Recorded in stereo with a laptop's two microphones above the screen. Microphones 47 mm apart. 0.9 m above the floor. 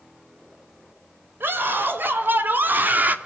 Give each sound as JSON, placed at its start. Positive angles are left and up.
{"t": 1.4, "sound": "a scream", "side_deg": -55, "distance_m": 5.0}